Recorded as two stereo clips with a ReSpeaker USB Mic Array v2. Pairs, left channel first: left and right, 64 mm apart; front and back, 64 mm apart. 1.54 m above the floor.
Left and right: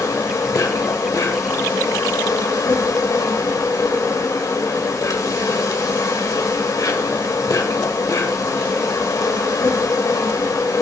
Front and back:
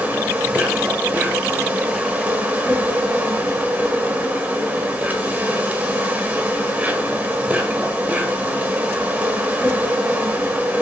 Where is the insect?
115° left, 1.7 m.